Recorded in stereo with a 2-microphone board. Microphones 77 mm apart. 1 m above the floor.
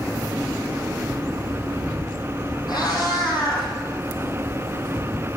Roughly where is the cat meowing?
Left.